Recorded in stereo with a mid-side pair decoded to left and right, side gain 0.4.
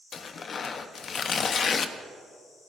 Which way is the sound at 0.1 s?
55° left.